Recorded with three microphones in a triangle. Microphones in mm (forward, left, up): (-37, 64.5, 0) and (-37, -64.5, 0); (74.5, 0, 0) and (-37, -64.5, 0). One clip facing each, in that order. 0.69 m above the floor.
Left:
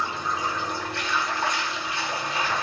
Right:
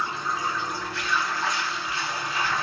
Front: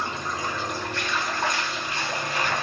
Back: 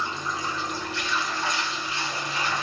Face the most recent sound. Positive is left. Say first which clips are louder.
# left 1 dB, front 1 dB
turn(degrees=70)